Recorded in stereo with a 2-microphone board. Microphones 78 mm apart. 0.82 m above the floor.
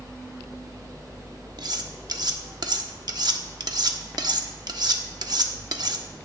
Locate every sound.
1.6 s cutlery clinking: 65° right (ahead or behind), 1.0 m